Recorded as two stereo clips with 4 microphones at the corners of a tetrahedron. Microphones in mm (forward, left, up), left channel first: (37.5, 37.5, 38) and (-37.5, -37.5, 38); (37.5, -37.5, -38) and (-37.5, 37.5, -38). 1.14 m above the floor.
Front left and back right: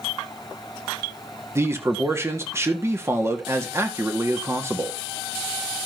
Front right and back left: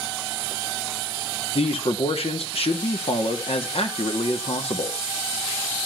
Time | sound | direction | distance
1.6 | a man speaking | 70° right | 1.6 m